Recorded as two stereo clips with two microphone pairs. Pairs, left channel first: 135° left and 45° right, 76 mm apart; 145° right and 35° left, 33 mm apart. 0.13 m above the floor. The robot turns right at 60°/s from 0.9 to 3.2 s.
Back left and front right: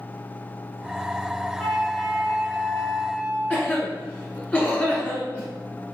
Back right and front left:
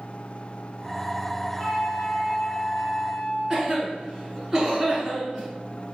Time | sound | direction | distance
1.6 | a flute | 135° right | 1.9 m
3.5 | a cough | 105° left | 1.4 m